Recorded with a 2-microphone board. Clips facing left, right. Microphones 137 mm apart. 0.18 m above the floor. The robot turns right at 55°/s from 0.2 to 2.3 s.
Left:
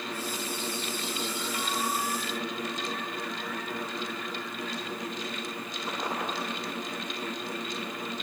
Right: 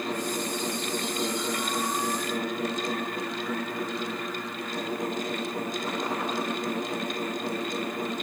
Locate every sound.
Only background noise.